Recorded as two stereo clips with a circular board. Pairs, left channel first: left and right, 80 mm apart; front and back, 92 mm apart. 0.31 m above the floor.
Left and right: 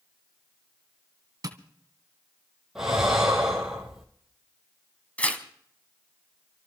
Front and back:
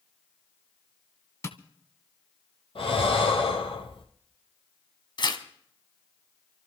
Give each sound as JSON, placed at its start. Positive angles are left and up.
{"t": 1.4, "sound": "tapping", "azimuth_deg": -55, "distance_m": 1.9}
{"t": 2.8, "sound": "breathing", "azimuth_deg": -5, "distance_m": 3.5}
{"t": 5.2, "sound": "tearing paper", "azimuth_deg": 20, "distance_m": 2.0}